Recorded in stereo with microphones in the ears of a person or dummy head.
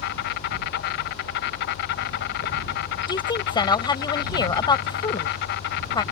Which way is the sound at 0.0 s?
60° left (ahead or behind).